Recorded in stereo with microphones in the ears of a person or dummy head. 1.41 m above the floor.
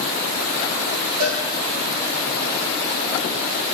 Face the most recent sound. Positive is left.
turn(degrees=-55)  # may be behind; listen again after turning